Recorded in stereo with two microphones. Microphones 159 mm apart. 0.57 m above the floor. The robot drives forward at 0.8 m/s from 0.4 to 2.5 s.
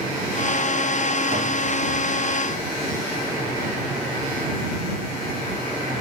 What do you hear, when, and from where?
1.3 s a thud: 70° right (ahead or behind), 9 m; by 1.5 s 65° right (ahead or behind), 9 m